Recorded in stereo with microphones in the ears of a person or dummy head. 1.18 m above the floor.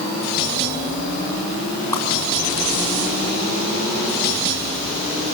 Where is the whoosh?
20° left (ahead or behind), 3 m.